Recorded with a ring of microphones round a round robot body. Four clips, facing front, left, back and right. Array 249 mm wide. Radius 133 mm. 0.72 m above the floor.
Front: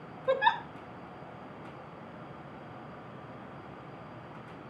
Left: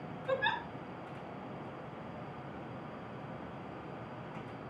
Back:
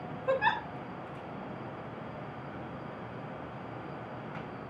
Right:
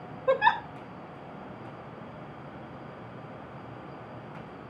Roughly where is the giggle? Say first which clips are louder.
Right 10 dB, front 2 dB; right.